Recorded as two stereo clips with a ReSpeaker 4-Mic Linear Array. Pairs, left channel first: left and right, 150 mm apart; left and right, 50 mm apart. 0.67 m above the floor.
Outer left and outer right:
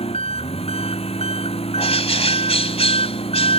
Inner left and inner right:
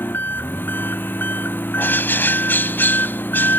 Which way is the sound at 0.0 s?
40° left (ahead or behind).